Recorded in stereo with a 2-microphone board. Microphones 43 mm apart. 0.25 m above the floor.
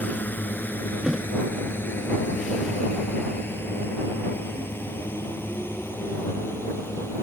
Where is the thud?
10° right (ahead or behind).